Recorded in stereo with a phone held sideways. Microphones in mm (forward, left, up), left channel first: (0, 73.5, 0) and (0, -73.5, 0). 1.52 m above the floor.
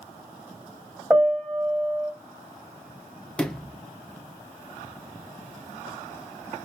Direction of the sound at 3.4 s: 5° left (ahead or behind).